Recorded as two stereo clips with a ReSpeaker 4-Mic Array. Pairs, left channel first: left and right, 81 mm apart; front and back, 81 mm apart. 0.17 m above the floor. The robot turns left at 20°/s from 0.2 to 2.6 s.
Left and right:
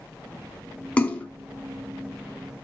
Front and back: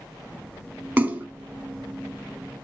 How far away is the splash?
About 0.5 m.